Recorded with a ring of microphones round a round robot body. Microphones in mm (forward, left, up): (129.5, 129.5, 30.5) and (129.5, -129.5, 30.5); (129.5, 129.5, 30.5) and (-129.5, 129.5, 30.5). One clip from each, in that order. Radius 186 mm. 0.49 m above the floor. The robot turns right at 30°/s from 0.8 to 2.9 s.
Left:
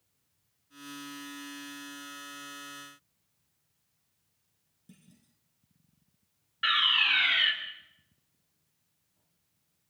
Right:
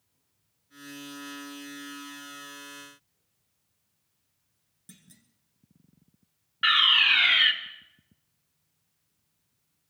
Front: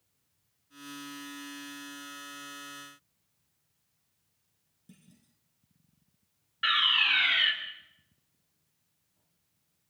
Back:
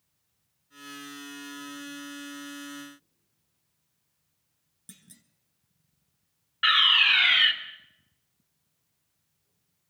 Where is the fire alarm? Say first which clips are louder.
Right 5 dB, back 5 dB; 145° right, 1.9 m.